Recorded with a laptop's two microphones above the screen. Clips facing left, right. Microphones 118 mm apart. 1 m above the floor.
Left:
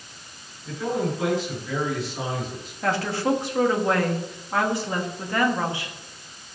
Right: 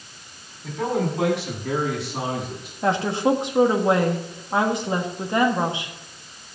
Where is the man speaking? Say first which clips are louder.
Right 2 dB; 85° right, 6.5 m; by 2.7 s 75° right (ahead or behind), 8.5 m.